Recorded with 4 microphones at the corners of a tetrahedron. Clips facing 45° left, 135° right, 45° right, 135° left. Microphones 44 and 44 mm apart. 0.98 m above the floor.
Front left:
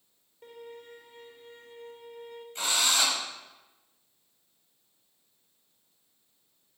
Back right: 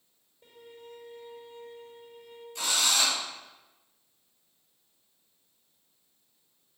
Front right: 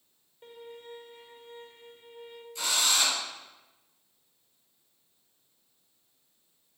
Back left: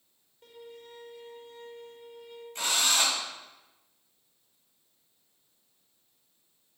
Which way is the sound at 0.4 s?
15° left.